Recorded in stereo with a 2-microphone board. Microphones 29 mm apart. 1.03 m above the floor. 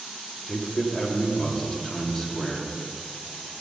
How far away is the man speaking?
About 2 m.